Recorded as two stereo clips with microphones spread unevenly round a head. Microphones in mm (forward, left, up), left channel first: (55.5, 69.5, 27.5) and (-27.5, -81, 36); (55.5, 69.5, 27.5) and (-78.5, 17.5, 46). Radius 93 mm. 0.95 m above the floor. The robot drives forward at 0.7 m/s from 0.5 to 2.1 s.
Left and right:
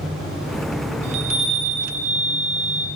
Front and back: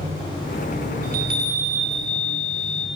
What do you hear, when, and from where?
1.0 s a chime: 175° right, 3 m